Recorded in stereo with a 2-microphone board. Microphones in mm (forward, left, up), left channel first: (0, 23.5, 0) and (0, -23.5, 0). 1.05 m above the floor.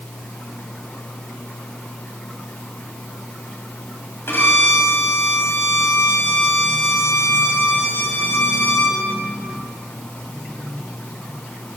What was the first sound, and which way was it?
A violin, 55° left (ahead or behind).